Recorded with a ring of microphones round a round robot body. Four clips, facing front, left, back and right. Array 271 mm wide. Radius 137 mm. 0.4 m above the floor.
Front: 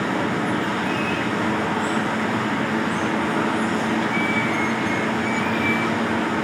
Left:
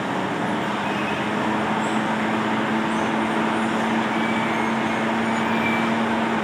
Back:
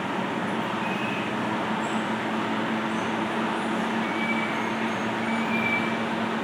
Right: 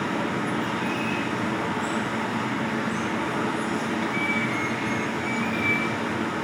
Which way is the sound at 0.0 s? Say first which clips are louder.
Left 3 dB, front 5 dB; 5° right.